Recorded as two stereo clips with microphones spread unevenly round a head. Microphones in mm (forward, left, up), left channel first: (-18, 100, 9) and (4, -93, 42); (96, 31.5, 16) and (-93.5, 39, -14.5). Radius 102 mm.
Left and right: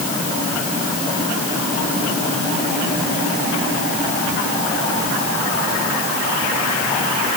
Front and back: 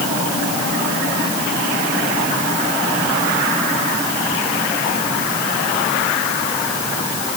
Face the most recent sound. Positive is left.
No sound to turn to.